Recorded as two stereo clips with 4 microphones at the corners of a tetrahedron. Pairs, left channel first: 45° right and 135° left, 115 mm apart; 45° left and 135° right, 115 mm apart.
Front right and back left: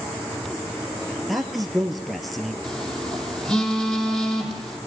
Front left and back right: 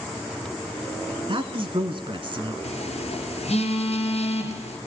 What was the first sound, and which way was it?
A man speaking, 135° right.